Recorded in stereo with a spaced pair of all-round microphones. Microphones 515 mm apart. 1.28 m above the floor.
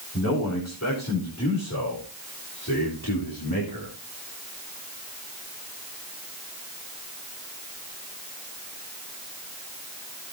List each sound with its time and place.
0.1 s a man speaking: 30° left (ahead or behind), 5.5 m; by 4.0 s 45° left (ahead or behind), 3.5 m